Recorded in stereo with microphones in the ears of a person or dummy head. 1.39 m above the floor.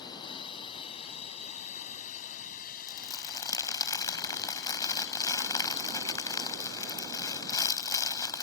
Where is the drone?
25° left (ahead or behind); by 8.4 s 80° left.